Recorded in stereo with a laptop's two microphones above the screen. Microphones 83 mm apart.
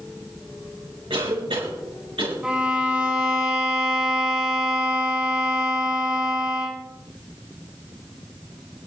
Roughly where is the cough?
Right.